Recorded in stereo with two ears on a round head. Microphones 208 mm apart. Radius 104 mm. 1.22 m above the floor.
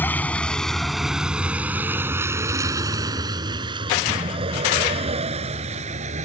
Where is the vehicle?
10° left (ahead or behind); by 6.3 s 30° right (ahead or behind).